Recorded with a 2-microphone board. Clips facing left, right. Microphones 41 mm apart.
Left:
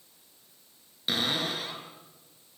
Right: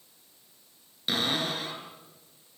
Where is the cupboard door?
Centre (ahead or behind), 6.5 m.